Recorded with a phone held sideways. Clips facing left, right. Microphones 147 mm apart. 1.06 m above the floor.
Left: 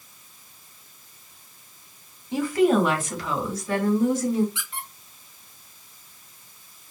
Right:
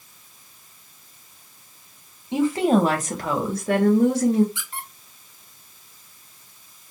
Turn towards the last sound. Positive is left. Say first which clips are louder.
# right 1 dB
turn(degrees=-40)  # may be behind; listen again after turning